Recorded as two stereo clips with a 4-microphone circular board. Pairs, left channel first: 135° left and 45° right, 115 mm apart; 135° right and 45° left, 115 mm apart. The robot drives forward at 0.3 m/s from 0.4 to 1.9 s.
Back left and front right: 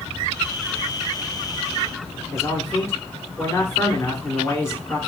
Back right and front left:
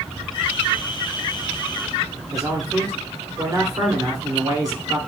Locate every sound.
2.3 s a man speaking: 85° left, 1.4 m